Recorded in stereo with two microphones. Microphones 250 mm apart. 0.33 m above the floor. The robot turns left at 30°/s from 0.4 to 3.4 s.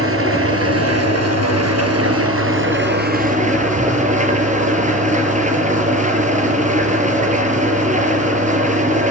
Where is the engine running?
60° right, 4.5 m; by 9.1 s 150° right, 4.5 m.